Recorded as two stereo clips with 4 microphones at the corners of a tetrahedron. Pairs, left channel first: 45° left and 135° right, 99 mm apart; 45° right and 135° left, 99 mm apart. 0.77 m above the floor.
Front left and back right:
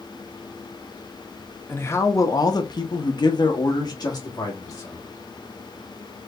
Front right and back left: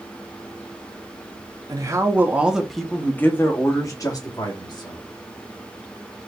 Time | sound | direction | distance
1.7 | a man speaking | 105° left | 1.0 m